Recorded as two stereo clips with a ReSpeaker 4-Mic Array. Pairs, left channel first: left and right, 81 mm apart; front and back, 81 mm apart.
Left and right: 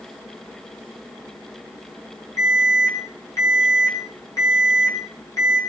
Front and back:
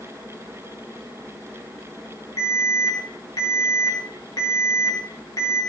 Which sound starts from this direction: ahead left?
An alarm, at 2.4 s.